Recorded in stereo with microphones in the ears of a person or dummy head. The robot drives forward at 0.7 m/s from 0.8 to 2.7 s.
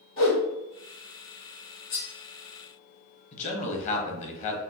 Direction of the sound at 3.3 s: 40° left (ahead or behind).